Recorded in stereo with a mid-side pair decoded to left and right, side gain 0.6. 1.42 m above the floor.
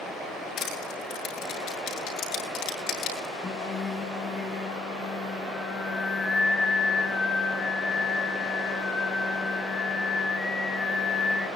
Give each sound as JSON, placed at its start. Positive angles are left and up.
{"t": 0.6, "sound": "crushing", "azimuth_deg": 65, "distance_m": 8.5}
{"t": 3.4, "sound": "singing", "azimuth_deg": 25, "distance_m": 5.0}